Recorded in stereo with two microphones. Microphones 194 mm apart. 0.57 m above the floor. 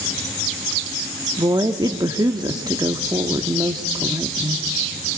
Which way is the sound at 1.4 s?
20° right (ahead or behind).